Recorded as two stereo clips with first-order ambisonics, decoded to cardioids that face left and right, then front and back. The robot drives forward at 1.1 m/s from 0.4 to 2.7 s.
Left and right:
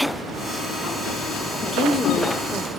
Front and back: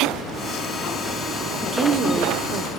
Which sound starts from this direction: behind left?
A woman speaking, at 1.6 s.